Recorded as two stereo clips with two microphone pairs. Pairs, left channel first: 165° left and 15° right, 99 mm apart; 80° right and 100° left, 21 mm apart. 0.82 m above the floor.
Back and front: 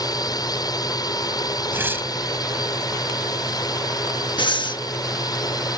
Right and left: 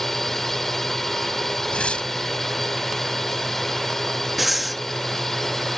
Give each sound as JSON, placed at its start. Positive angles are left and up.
{"t": 0.0, "sound": "a drone", "azimuth_deg": -150}
{"t": 1.7, "sound": "tearing paper", "azimuth_deg": -80}
{"t": 4.4, "sound": "breathing", "azimuth_deg": -175}